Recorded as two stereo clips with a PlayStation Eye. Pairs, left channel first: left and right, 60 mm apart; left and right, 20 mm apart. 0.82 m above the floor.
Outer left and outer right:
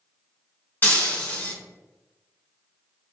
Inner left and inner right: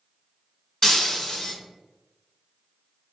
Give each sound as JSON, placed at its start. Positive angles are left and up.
{"t": 0.8, "sound": "breaking glass", "side_deg": 30, "distance_m": 1.0}